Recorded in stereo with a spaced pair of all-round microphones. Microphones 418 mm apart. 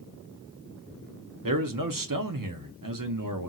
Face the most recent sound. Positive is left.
turn(degrees=-50)  # may be behind; listen again after turning